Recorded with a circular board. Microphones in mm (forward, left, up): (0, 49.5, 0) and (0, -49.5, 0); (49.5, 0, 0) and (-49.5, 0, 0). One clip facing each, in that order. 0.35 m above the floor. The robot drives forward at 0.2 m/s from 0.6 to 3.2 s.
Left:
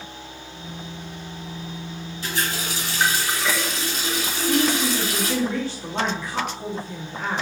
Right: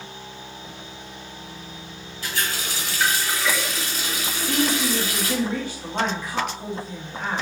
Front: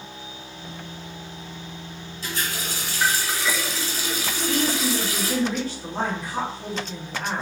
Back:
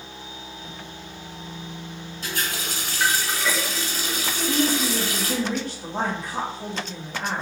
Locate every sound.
2.2 s a running tap: 155° left, 1.4 m
4.3 s a woman speaking: 165° right, 1.6 m